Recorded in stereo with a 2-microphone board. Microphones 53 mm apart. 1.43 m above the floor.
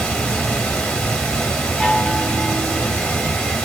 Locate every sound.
0.0 s running water: 20° left (ahead or behind), 1.0 m
1.8 s a chime: 10° left (ahead or behind), 1.0 m